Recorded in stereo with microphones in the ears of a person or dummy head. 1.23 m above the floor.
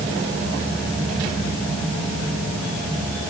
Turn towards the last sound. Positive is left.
No sound to turn to.